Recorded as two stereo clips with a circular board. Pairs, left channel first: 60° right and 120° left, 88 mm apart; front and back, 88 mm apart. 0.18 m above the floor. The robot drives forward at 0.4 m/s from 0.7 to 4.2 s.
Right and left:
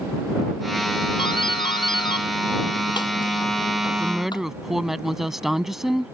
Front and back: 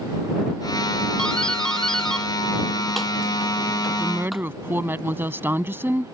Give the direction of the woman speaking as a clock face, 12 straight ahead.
5 o'clock.